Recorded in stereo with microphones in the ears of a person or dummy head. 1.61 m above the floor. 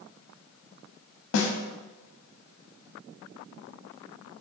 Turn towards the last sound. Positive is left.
turn(degrees=80)